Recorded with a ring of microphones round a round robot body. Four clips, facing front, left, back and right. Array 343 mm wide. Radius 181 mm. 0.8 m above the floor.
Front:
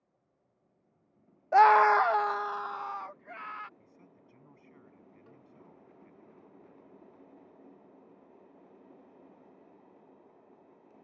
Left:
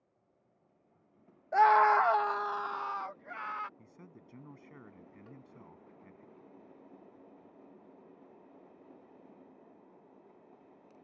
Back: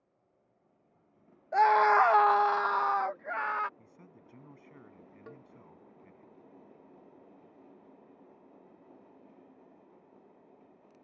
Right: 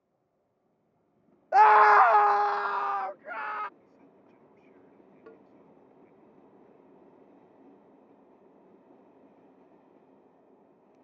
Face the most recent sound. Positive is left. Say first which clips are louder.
# right 5 dB, back 11 dB
turn(degrees=-140)